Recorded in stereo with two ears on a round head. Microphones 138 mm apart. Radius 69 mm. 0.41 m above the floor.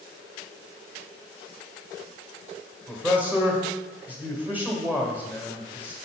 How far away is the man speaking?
About 1.4 m.